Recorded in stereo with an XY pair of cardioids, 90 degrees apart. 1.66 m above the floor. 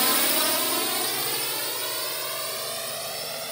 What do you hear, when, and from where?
0.0 s a drone: 10° right; by 3.5 s 15° right